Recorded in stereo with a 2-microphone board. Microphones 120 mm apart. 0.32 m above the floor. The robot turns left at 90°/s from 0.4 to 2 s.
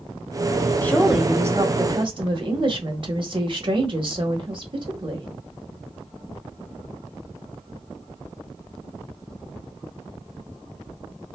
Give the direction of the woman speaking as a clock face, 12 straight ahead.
11 o'clock.